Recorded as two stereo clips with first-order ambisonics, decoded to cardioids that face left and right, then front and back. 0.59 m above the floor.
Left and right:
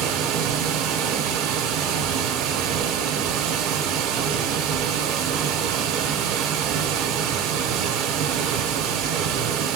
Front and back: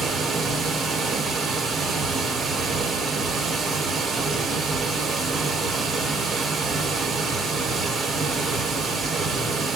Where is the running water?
110° right, 0.9 m.